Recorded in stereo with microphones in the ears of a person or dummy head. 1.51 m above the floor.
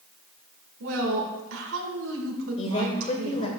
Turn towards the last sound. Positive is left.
turn(degrees=35)  # may be behind; listen again after turning